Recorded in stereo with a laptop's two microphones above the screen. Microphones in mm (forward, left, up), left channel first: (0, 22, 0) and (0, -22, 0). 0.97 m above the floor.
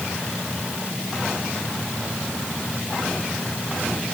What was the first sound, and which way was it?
Only background noise.